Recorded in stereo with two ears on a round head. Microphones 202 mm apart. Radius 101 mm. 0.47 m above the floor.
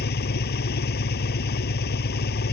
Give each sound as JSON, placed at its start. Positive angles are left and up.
{"t": 0.0, "sound": "an engine running", "side_deg": 50}